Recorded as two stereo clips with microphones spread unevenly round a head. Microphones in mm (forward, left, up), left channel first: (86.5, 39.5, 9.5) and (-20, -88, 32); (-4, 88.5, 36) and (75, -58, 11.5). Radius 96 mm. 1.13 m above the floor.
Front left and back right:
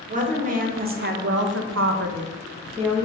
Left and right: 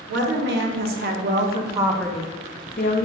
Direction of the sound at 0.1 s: 85° right.